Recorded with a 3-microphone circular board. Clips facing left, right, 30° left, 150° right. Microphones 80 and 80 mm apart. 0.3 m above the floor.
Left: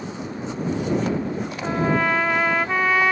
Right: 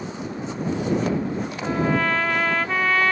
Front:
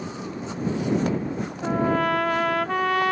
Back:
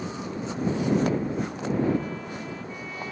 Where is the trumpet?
10° left.